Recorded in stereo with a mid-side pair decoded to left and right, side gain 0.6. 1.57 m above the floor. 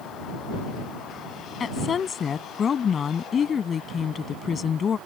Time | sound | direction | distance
1.6 | a woman speaking | 35° left | ?